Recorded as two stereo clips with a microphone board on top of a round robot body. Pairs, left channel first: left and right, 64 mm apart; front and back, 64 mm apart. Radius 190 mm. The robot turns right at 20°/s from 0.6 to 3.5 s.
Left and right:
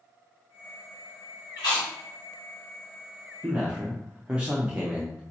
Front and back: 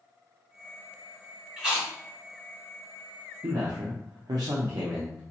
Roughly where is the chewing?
Left.